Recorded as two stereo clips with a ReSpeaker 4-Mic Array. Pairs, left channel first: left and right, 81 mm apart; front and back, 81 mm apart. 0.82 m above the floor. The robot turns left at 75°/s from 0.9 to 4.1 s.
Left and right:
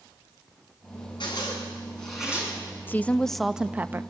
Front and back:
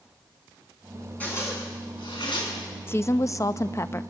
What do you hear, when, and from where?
1.2 s a zipper: 70° left, 6.5 m; by 2.5 s 25° right, 6.5 m
2.9 s a woman speaking: 40° left, 0.5 m; by 4.0 s 45° right, 0.5 m